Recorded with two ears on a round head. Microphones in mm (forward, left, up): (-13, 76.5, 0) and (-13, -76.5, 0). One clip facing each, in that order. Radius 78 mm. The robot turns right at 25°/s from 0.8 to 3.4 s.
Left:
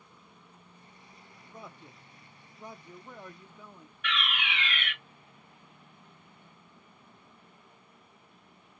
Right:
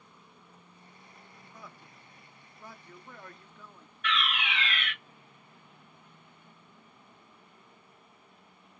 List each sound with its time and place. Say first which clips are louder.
1.5 s a man speaking: left 5 dB; 20° left (ahead or behind), 0.6 m; by 3.9 s 10° left (ahead or behind), 0.6 m
4.0 s a fire alarm: right 2 dB; 35° right (ahead or behind), 2 m